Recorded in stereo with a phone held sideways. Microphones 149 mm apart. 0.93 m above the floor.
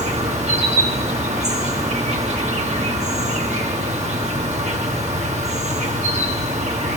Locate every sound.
0.0 s an insect: 50° right (ahead or behind), 1.2 m